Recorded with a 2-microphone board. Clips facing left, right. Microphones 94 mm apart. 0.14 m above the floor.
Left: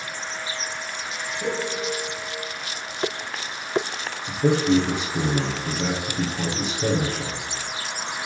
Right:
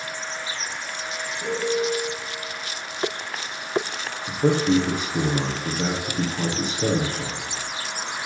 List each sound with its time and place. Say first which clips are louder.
1.4 s a piano: right 4 dB; 15° left (ahead or behind), 3.5 m
4.3 s a man speaking: even; 35° right (ahead or behind), 3 m